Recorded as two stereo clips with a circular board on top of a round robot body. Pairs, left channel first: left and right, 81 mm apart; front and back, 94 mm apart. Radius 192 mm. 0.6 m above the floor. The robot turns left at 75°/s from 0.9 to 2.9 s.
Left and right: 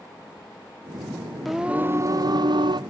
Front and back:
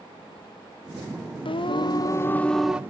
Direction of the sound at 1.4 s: Straight ahead.